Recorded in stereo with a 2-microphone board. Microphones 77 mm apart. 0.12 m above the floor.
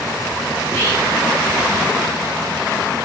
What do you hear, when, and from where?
0.6 s whispering: 30° left (ahead or behind), 4 m